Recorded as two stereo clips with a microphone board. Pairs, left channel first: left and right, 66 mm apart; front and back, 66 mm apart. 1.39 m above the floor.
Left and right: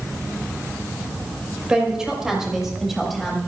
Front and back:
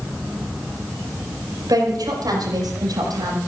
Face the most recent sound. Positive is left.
turn(degrees=180)